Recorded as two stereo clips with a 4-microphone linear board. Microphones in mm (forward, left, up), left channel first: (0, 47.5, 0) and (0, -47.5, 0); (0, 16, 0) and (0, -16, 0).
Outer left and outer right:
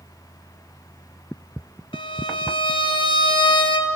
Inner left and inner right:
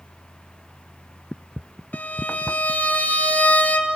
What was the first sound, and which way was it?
A violin, 65° left (ahead or behind).